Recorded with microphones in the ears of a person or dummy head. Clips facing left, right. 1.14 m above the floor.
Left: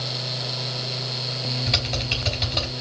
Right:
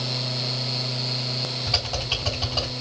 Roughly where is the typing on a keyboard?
Left.